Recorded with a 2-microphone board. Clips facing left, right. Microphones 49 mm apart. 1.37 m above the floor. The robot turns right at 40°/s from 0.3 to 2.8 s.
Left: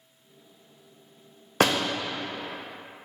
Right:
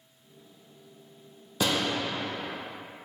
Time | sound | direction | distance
1.6 | a door slam | 60° left (ahead or behind) | 0.6 m